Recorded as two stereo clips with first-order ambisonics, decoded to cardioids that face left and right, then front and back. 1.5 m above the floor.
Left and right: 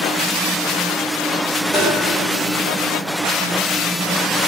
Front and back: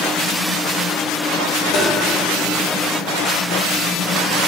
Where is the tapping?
5° left, 1.0 m.